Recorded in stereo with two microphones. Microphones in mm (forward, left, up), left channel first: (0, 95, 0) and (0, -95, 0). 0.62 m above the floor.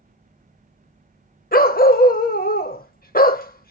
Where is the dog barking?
50° left (ahead or behind), 0.5 m.